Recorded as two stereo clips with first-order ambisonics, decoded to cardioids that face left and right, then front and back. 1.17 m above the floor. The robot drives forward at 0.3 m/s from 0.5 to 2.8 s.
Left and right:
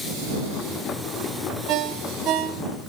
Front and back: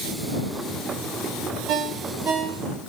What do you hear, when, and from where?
1.7 s a ringtone: 130° right, 1.6 m; by 2.6 s 135° right, 1.7 m